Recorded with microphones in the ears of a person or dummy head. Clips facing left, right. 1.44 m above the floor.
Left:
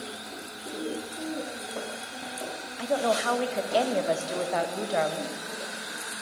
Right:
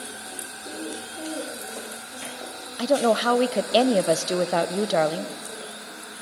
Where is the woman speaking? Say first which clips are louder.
Right 6 dB; 60° right (ahead or behind), 0.6 m.